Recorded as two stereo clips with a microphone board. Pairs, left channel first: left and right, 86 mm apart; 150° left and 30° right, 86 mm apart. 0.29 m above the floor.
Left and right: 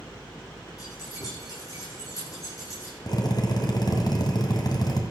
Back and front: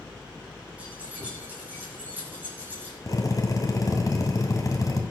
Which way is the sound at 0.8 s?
45° left.